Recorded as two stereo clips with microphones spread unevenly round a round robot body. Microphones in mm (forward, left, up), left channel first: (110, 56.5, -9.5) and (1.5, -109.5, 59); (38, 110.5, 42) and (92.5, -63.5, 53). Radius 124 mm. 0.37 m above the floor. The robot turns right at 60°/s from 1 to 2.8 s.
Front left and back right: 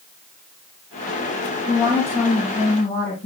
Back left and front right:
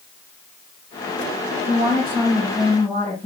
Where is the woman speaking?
35° right, 3.5 m; by 3.3 s 35° left, 3.5 m.